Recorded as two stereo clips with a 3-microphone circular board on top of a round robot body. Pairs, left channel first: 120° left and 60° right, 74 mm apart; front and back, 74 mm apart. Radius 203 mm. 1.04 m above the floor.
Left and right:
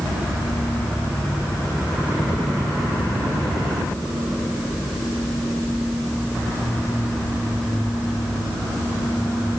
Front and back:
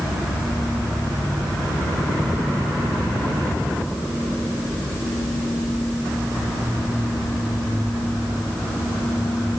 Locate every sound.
Only background noise.